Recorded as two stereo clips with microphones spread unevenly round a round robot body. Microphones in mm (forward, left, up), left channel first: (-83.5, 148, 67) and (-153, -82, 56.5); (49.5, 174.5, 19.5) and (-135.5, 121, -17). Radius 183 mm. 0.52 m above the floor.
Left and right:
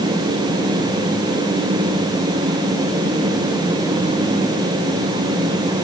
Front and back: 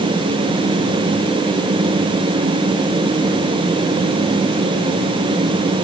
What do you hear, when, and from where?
Only background noise.